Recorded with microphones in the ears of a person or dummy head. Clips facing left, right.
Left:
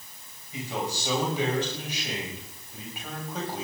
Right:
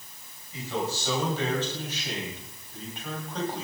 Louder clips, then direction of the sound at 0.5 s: Right 1 dB; 15° left (ahead or behind).